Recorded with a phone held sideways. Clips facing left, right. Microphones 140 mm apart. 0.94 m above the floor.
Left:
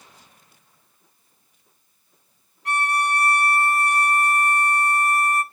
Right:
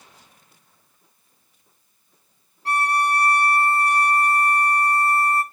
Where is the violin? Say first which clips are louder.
Right 2 dB; 30° right (ahead or behind), 1.2 m.